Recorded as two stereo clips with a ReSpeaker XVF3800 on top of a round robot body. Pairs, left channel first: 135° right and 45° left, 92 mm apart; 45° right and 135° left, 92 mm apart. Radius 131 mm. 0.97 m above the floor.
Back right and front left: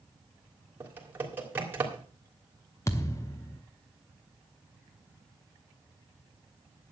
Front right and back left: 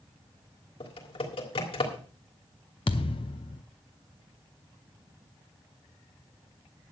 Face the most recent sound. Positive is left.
turn(degrees=-75)